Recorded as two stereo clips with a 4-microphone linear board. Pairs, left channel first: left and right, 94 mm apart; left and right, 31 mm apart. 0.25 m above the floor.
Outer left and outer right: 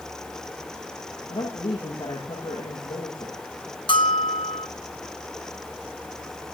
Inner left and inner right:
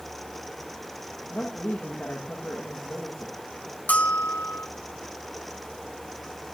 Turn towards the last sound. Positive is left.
turn(degrees=60)  # may be behind; listen again after turning